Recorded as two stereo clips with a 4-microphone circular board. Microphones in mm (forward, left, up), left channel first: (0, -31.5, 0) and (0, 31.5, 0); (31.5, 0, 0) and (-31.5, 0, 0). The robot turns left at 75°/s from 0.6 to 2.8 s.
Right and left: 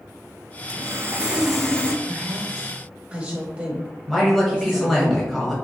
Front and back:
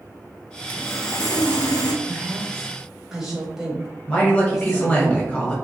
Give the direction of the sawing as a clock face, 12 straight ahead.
10 o'clock.